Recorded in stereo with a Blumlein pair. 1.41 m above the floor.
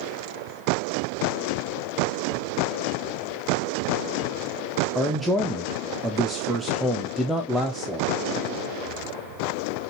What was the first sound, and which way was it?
A man speaking, straight ahead.